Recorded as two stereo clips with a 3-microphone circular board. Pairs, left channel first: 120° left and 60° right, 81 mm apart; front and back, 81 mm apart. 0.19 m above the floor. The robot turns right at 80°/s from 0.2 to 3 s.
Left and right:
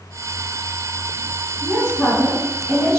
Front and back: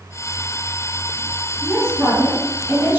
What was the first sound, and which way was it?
A woman speaking, 60° left.